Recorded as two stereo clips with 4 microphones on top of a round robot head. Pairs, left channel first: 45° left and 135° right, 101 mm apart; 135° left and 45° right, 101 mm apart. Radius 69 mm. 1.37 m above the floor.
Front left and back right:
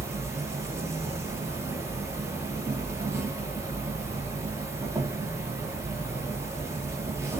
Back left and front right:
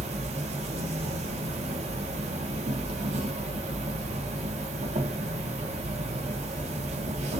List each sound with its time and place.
0.0 s an insect: 70° right, 1.0 m